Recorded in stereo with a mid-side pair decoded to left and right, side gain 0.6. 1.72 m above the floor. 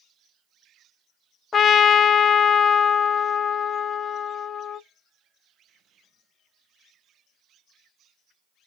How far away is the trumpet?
About 0.5 m.